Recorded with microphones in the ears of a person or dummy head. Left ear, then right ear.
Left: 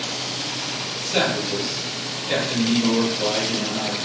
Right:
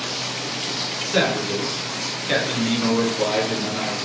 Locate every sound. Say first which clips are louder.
1.0 s a man speaking: even; 10° left (ahead or behind), 1.1 m; by 3.9 s 70° right (ahead or behind), 1.5 m